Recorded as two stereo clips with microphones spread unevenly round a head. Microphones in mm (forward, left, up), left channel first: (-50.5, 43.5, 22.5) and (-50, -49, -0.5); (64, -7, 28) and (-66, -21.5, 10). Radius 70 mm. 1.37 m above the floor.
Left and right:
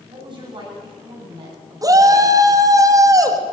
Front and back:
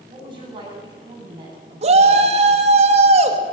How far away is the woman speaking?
About 9 m.